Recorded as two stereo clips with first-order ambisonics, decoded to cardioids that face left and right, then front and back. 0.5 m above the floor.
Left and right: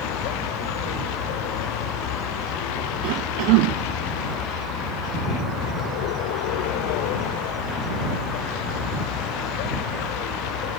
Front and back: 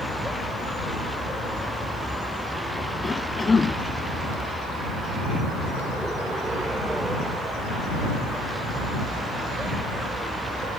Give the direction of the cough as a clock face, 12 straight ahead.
3 o'clock.